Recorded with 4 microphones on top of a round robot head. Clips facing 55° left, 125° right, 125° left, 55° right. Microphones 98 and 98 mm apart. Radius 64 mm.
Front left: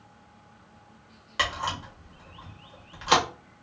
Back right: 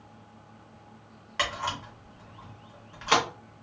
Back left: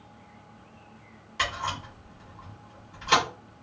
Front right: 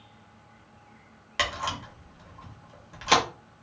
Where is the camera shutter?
25° right, 0.8 m.